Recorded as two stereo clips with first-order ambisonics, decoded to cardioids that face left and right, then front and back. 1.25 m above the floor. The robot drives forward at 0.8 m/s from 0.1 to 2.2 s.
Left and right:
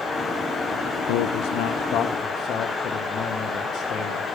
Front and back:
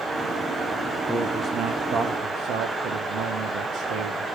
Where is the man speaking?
90° left, 0.7 m; by 4.3 s 145° left, 1.1 m.